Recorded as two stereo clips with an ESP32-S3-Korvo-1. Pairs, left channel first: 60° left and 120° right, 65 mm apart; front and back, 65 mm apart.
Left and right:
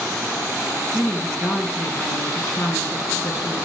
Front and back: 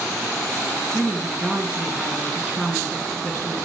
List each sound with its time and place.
0.9 s a woman speaking: 105° left, 3.5 m